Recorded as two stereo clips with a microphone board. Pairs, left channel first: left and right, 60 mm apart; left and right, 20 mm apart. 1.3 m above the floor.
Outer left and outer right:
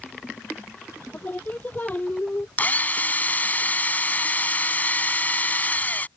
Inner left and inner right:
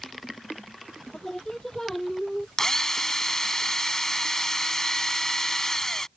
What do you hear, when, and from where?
1.1 s singing: 30° left (ahead or behind)
2.6 s a drill: 30° left (ahead or behind)